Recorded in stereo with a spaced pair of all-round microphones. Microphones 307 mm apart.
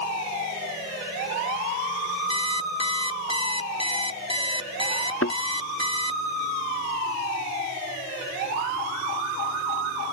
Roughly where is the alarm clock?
Centre.